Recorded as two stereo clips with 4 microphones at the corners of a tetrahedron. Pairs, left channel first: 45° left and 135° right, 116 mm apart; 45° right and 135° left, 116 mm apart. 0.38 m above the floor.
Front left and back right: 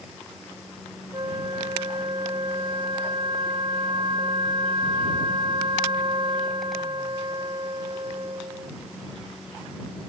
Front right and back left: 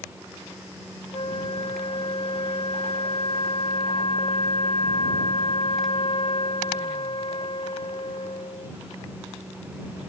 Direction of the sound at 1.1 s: 85° right.